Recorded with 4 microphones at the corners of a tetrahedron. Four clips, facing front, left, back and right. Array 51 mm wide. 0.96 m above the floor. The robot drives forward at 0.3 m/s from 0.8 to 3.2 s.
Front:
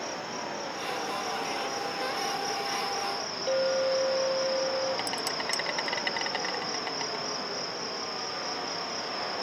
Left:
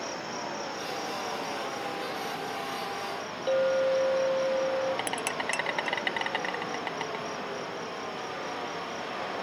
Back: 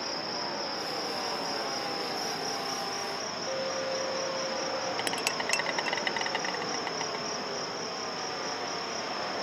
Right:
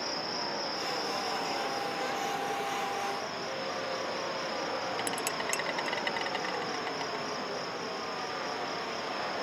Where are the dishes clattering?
165° left.